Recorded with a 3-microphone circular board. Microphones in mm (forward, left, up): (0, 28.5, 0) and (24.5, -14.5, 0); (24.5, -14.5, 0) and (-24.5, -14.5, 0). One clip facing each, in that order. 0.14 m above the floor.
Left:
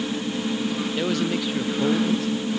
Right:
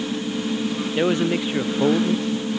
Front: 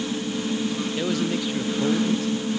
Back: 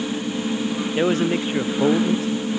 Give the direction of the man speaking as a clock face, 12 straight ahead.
4 o'clock.